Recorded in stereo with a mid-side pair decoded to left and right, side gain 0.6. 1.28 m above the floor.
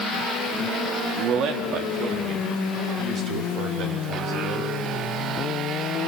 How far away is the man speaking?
About 2.5 m.